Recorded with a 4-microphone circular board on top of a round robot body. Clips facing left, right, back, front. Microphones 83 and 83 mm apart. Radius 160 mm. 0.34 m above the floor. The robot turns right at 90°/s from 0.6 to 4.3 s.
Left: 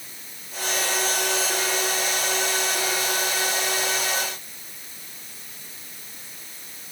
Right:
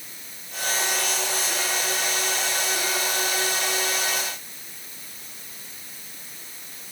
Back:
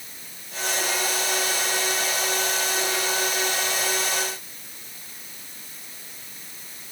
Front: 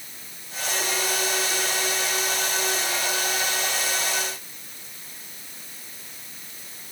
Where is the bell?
No bell in this recording.